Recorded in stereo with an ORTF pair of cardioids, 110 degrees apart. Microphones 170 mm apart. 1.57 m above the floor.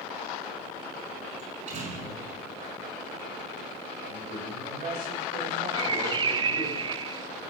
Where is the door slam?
45° right, 5.5 m.